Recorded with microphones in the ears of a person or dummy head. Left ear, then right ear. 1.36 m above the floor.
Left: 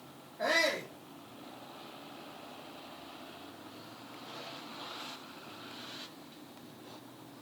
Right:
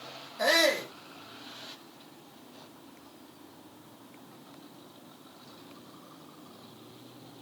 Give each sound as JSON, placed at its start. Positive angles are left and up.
{"t": 0.4, "sound": "a shout", "side_deg": -75, "distance_m": 2.5}